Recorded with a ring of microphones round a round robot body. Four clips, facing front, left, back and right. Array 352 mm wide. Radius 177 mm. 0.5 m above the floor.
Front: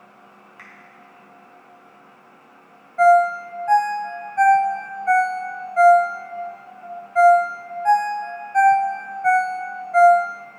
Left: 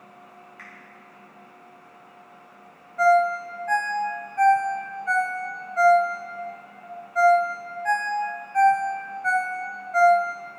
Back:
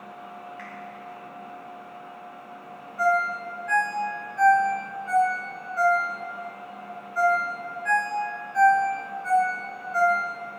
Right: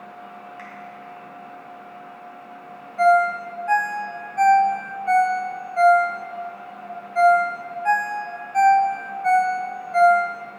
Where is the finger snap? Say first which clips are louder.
Right 7 dB, back 5 dB; 35° right, 1.9 m.